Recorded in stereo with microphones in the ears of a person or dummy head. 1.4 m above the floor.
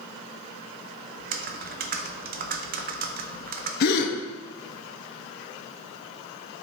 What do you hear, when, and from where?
1.2 s typing on a keyboard: 40° right (ahead or behind), 0.5 m
3.8 s a gasp: 55° left (ahead or behind), 0.8 m